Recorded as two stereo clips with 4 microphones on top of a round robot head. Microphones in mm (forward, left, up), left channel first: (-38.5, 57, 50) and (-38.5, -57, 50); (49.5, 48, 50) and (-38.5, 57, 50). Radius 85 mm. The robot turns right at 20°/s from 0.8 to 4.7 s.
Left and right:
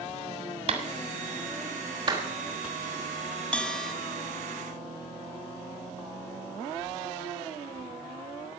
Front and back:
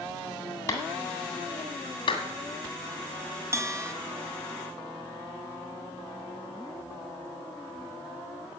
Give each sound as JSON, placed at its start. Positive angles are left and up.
{"t": 0.7, "sound": "a clap", "azimuth_deg": -65, "distance_m": 1.9}
{"t": 3.5, "sound": "a bell", "azimuth_deg": 160, "distance_m": 1.2}